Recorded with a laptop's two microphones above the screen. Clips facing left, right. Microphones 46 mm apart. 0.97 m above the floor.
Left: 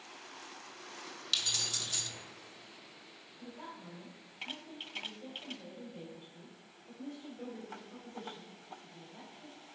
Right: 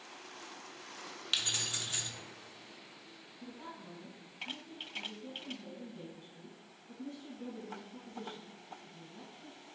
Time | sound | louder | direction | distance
1.3 | keys jangling | right 1 dB | 25° right (ahead or behind) | 0.7 m
3.4 | a woman speaking | left 1 dB | 85° left | 3.5 m